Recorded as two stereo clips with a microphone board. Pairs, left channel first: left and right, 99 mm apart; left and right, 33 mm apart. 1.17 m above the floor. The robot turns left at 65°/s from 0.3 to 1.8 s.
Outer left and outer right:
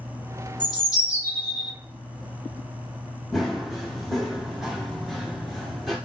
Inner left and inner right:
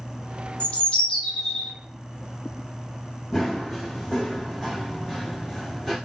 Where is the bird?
70° left, 0.7 m; by 1.7 s straight ahead, 0.7 m.